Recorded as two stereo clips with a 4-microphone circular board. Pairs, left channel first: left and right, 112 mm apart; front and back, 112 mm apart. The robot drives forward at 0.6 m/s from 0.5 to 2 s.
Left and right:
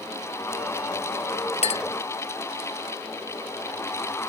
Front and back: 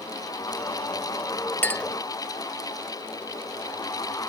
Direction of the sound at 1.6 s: 70° left.